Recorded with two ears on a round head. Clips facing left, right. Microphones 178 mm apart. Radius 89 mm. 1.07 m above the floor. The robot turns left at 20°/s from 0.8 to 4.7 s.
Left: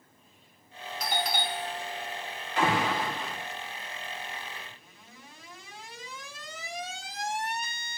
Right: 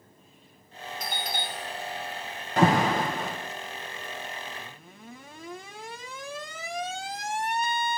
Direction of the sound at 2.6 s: 35° right (ahead or behind).